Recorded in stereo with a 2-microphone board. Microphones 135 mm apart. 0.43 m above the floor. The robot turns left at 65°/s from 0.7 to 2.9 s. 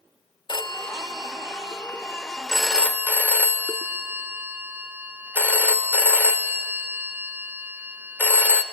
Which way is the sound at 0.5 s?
35° left (ahead or behind).